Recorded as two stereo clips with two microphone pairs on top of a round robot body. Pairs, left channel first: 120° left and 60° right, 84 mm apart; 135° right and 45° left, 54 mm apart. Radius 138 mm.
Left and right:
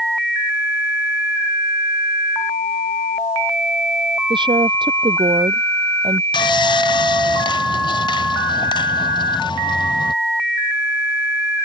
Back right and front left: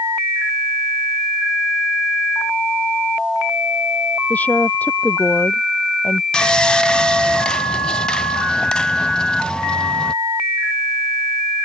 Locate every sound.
4.3 s a woman speaking: 80° right
6.3 s sawing: 150° left